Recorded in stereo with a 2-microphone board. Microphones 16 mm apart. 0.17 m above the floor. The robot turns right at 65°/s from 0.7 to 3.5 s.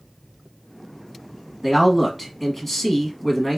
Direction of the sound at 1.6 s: 10° right (ahead or behind).